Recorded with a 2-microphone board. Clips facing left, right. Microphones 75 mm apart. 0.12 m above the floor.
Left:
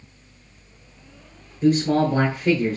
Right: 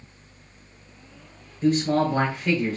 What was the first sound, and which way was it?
A man speaking, 15° left (ahead or behind).